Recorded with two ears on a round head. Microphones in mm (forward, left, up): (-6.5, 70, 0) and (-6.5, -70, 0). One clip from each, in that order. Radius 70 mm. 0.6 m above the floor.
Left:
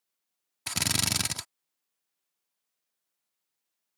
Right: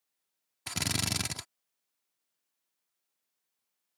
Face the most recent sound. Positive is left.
turn(degrees=20)  # may be behind; listen again after turning